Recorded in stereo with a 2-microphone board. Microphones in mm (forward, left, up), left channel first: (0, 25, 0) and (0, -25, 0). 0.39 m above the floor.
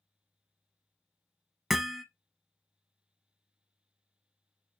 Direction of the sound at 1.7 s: 5° right (ahead or behind).